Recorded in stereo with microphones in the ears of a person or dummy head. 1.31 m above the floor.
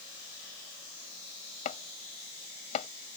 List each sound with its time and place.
1.6 s chopping: 45° left (ahead or behind)